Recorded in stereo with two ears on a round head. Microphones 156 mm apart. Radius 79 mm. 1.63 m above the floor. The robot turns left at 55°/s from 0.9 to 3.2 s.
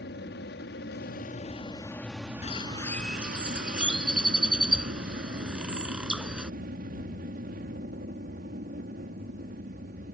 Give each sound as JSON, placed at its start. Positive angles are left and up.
{"t": 0.0, "sound": "an aircraft", "azimuth_deg": 70}
{"t": 2.4, "sound": "a bird", "azimuth_deg": 35}